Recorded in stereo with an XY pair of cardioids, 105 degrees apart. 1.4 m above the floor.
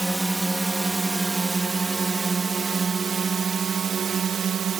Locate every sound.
0.0 s a drone: 10° right; by 4.8 s 55° right